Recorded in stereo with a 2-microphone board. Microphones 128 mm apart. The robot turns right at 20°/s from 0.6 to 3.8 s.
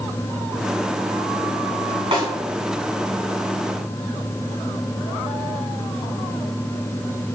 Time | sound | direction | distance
2.1 | a snare drum | 50° right (ahead or behind) | 1.8 m